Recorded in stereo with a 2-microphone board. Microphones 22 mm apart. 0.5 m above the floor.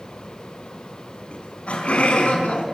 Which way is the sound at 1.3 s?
75° left (ahead or behind).